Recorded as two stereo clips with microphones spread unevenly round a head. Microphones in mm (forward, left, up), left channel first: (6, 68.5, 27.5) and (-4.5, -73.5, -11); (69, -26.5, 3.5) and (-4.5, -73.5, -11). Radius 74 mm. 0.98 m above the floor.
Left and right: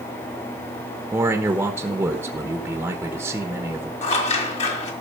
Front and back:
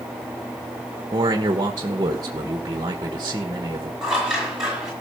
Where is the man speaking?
150° right, 1.1 m.